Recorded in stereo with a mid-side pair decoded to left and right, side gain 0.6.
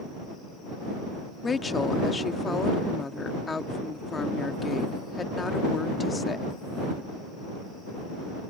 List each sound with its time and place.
1.4 s a woman speaking: 25° left